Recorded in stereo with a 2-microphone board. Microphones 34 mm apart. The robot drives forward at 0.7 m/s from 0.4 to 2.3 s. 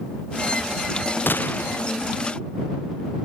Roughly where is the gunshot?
Left.